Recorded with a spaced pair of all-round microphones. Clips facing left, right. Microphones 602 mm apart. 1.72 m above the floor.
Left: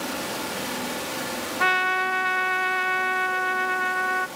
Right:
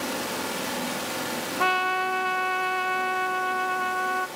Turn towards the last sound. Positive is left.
turn(degrees=50)  # may be behind; listen again after turning